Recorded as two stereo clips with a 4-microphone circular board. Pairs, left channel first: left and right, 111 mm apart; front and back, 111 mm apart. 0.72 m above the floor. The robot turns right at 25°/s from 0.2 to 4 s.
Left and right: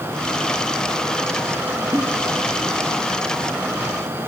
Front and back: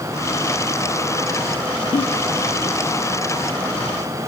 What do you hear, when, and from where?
1.9 s a giggle: 20° right, 0.8 m; by 2.0 s 15° right, 0.8 m